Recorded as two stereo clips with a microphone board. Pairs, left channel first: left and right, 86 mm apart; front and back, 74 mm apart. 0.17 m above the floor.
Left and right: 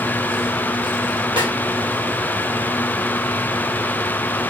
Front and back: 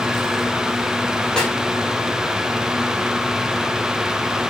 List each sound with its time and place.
1.4 s a snare drum: 80° right, 1.9 m